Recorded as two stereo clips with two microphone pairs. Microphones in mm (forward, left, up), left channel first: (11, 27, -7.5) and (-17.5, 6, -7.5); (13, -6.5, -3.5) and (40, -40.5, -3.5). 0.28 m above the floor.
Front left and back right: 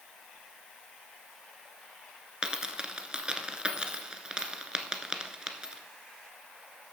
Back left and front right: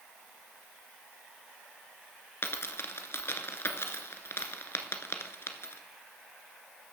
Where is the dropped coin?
150° left, 1.3 m.